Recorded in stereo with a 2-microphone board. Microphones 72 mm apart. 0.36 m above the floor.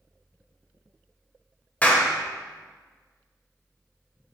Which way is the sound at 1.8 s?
20° left (ahead or behind).